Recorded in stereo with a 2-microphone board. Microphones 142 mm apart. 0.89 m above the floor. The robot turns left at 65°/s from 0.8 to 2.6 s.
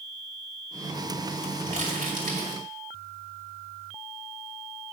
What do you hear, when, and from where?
1.7 s crumpling: 65° right, 2 m; by 2.6 s 130° right, 2 m